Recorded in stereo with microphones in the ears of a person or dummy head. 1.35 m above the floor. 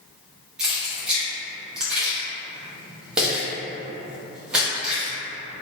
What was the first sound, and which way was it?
Keys jangling, 10° right (ahead or behind).